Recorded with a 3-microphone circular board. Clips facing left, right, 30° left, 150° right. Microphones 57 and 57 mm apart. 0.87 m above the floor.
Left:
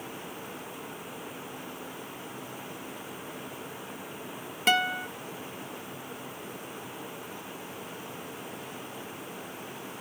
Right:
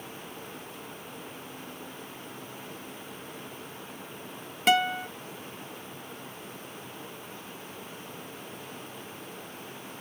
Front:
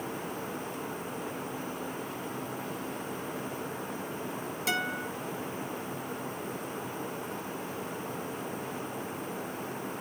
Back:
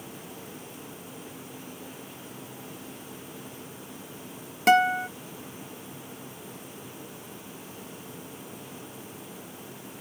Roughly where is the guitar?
Behind.